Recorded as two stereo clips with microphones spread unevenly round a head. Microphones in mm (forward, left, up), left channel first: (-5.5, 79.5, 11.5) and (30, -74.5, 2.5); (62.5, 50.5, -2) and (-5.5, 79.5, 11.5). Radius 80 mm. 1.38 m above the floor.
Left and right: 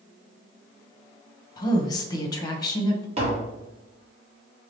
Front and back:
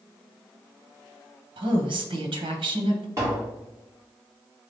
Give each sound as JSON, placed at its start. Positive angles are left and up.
{"t": 1.6, "sound": "a woman speaking", "azimuth_deg": 170, "distance_m": 1.0}
{"t": 3.2, "sound": "tapping", "azimuth_deg": -135, "distance_m": 1.4}